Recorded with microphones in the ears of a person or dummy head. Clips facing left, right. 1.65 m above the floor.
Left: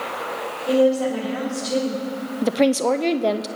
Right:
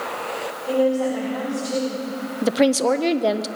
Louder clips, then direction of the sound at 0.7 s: Left 2 dB; 30° left (ahead or behind).